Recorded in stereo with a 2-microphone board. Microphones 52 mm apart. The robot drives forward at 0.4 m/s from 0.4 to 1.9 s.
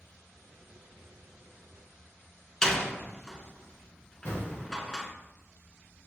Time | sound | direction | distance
2.6 | a door slam | 15° left (ahead or behind) | 0.8 m
4.2 | an explosion | 55° left (ahead or behind) | 2 m